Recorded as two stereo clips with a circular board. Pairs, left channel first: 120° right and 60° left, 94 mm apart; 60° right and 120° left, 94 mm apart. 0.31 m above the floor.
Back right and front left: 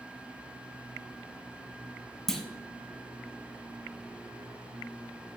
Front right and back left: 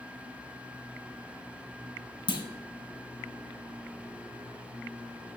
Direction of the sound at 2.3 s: 35° right.